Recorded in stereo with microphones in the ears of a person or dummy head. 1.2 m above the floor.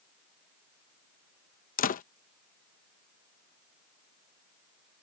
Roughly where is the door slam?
Left.